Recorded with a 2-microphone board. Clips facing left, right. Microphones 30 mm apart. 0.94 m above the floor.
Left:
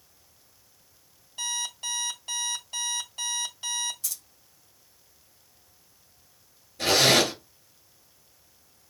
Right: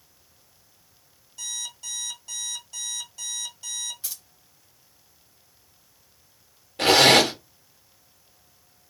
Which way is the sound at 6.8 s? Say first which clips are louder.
Right 5 dB; 65° right (ahead or behind).